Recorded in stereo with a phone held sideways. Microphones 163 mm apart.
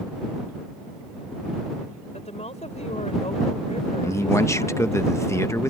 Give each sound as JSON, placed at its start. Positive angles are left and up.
{"t": 2.1, "sound": "a woman speaking", "side_deg": 45}
{"t": 4.0, "sound": "a man speaking", "side_deg": 20}